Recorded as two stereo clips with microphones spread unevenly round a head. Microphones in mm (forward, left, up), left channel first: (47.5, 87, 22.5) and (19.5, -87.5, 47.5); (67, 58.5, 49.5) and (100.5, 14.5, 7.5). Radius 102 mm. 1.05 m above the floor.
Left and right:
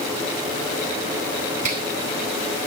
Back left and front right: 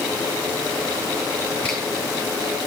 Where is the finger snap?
150° right, 4.5 m.